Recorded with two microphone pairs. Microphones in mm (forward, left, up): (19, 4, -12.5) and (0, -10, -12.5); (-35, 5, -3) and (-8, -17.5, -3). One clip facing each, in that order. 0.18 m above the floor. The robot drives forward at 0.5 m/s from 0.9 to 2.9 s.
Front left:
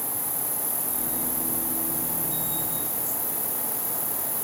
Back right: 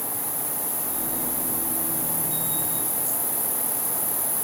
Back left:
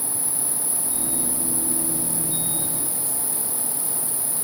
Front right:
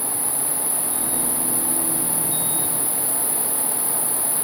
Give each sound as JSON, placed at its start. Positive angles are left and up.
{"t": 0.0, "sound": "an insect", "azimuth_deg": 75, "distance_m": 4.0}